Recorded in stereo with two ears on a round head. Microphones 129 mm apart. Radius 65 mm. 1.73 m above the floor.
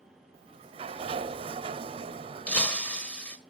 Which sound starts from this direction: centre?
Breaking glass, at 2.5 s.